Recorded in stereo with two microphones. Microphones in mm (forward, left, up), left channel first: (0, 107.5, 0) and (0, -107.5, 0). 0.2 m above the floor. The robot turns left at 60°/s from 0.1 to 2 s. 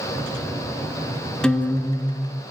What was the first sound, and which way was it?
A guitar, 175° left.